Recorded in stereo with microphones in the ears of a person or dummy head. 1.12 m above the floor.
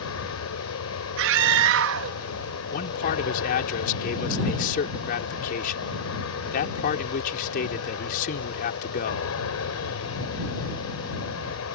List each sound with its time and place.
0.0 s an aircraft: 75° left (ahead or behind)
1.2 s a scream: 70° right (ahead or behind)
2.7 s a man speaking: 55° left (ahead or behind)